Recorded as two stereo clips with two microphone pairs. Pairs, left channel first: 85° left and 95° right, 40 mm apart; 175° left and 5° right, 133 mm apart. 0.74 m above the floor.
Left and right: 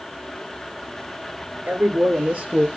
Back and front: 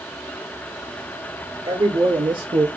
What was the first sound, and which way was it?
A man speaking, 55° right.